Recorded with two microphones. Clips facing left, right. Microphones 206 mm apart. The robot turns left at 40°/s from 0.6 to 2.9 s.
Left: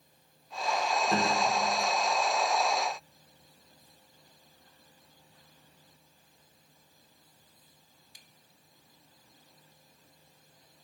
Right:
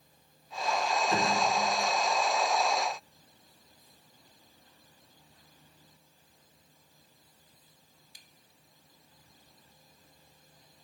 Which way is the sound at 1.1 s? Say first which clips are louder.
Left 1 dB; 40° left (ahead or behind).